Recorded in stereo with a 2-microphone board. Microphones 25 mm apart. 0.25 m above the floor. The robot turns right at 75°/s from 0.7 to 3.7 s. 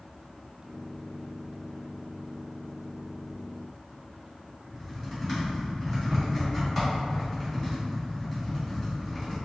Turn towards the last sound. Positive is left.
turn(degrees=0)  # may be behind; listen again after turning